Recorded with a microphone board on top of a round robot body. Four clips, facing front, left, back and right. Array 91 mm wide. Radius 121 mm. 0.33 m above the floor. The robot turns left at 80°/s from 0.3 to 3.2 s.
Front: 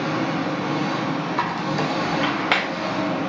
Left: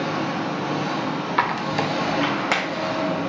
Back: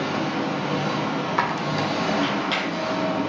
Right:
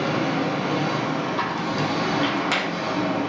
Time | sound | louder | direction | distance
0.0 | an engine running | right 2 dB, front 1 dB | 100° right | 1.7 m
1.4 | a squeak | left 2 dB, back 1 dB | 115° left | 0.5 m